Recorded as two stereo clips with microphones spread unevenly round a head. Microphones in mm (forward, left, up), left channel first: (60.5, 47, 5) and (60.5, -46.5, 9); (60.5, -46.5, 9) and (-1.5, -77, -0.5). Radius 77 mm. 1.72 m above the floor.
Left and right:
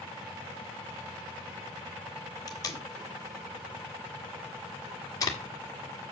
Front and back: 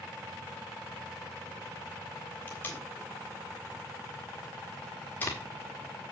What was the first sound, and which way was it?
Tape being pulled, 65° left.